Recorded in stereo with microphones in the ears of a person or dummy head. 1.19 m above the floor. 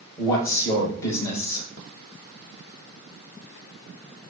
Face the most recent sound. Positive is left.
turn(degrees=20)  # may be behind; listen again after turning